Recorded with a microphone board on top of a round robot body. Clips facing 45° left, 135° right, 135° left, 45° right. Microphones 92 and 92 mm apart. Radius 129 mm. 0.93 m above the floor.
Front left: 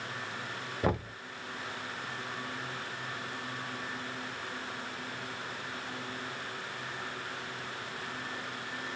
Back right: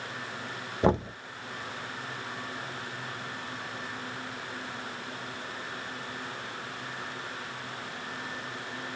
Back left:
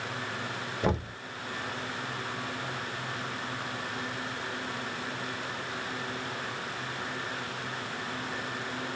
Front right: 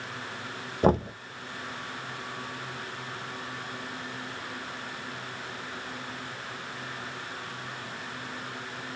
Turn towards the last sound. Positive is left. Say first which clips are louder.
# back right 7 dB, front right 7 dB
turn(degrees=-80)